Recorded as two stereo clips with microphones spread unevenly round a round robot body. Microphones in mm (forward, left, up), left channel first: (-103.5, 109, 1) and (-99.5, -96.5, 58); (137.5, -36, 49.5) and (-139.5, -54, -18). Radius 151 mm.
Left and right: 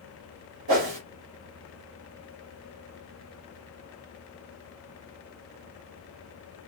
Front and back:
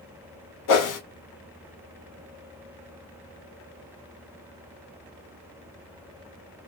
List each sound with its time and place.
0.7 s a whoosh: 30° right, 1.1 m